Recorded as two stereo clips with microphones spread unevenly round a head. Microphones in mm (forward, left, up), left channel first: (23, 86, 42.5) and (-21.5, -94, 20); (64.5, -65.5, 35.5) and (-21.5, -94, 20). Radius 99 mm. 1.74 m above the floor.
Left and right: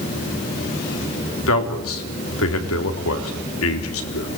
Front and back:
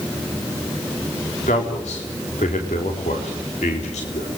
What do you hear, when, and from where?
1.5 s a man speaking: 55° left, 4 m